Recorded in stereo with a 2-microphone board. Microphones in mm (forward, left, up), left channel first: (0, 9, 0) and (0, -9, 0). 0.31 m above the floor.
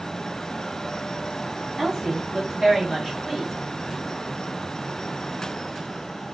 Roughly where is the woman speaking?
Right.